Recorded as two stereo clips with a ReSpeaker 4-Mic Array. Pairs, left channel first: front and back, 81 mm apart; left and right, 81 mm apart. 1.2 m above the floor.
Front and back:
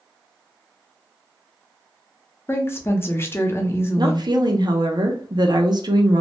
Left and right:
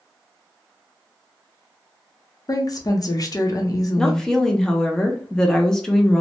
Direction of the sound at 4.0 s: 175° left.